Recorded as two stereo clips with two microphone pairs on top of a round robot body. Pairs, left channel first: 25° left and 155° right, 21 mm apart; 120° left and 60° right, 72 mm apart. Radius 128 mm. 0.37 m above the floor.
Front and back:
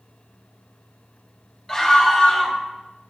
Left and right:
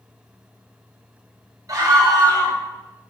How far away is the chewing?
I don't hear chewing.